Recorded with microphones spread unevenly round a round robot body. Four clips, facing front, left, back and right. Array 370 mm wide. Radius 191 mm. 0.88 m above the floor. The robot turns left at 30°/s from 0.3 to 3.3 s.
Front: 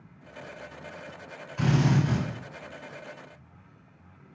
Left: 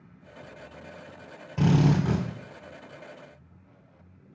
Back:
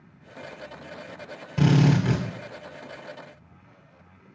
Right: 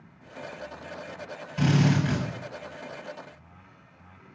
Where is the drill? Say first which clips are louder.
Left 1 dB, back 4 dB; 160° left, 2 m; by 2.2 s 140° left, 2 m.